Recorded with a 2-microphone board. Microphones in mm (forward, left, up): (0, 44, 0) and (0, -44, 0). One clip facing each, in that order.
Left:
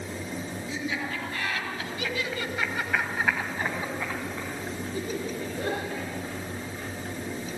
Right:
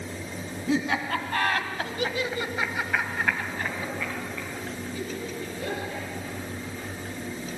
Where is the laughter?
65° right (ahead or behind), 3.5 m; by 6.8 s 50° left (ahead or behind), 7 m.